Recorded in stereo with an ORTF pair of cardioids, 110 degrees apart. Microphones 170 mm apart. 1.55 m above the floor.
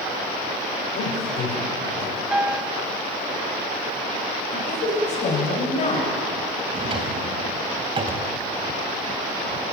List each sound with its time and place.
0.9 s a man speaking: 70° left, 6.5 m
2.3 s a piano: 5° right, 1.0 m
4.5 s a woman speaking: 45° left, 8.5 m
6.7 s a drawer: 35° right, 3.5 m